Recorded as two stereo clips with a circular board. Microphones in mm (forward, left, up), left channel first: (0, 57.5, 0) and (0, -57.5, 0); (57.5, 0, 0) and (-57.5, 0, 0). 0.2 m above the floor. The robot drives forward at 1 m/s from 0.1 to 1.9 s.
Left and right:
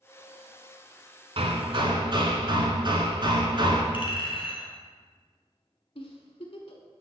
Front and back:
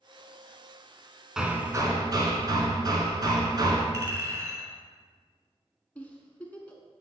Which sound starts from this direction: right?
Hammering, at 1.4 s.